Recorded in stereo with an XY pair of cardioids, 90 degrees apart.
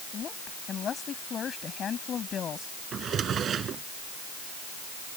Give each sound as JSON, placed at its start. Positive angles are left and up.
{"t": 0.1, "sound": "a woman speaking", "azimuth_deg": 60}
{"t": 2.9, "sound": "a drawer", "azimuth_deg": -65}